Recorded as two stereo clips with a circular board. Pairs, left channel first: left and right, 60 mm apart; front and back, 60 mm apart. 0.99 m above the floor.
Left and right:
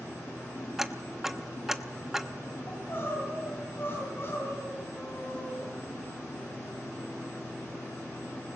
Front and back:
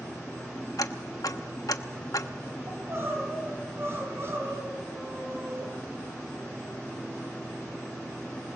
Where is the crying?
135° left, 5 m.